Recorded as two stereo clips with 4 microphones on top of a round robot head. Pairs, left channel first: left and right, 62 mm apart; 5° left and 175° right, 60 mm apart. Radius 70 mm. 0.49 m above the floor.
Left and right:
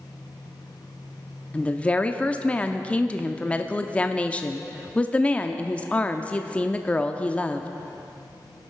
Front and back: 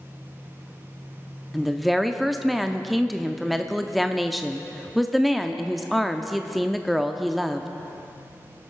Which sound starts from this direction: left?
A woman speaking, at 1.5 s.